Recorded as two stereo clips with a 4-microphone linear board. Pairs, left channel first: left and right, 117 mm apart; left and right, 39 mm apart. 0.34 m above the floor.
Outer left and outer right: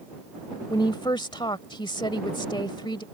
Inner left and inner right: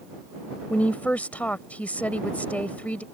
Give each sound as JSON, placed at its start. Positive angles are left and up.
{"t": 0.7, "sound": "a woman speaking", "side_deg": 40}